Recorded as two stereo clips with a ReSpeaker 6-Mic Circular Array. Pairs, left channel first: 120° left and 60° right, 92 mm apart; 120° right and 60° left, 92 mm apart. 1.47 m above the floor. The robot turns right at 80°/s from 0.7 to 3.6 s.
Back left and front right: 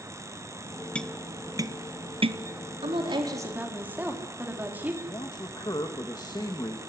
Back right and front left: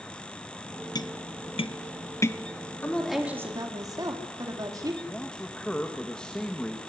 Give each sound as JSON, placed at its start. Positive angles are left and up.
{"t": 0.9, "sound": "tapping", "azimuth_deg": -165, "distance_m": 0.7}
{"t": 2.8, "sound": "a woman speaking", "azimuth_deg": -50, "distance_m": 4.0}
{"t": 5.0, "sound": "a man speaking", "azimuth_deg": 160, "distance_m": 1.9}